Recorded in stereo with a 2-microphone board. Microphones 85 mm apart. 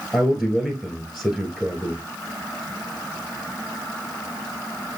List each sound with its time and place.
0.1 s a man speaking: centre (ahead or behind), 1.7 m